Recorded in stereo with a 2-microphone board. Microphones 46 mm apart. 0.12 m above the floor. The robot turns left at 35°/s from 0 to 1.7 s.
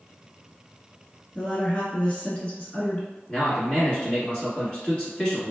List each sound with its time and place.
1.4 s a woman speaking: 25° left (ahead or behind), 1.2 m
3.3 s a man speaking: 20° left (ahead or behind), 1.4 m